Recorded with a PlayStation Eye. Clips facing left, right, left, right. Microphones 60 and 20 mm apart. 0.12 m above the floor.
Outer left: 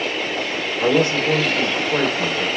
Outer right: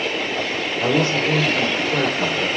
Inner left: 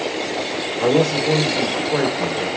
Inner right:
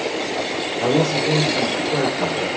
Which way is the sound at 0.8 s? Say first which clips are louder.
Outer left 2 dB, inner left 2 dB; 15° left (ahead or behind).